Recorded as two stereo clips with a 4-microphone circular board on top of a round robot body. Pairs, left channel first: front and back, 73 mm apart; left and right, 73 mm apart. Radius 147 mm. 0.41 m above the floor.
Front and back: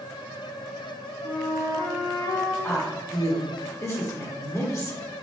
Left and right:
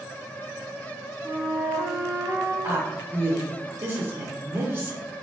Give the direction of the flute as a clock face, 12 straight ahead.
2 o'clock.